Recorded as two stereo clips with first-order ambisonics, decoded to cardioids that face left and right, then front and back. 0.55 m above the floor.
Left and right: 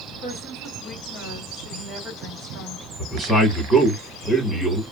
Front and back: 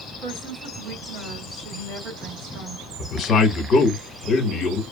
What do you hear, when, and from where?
0.2 s a woman speaking: 160° left, 2.5 m
3.0 s a man speaking: 10° left, 1.3 m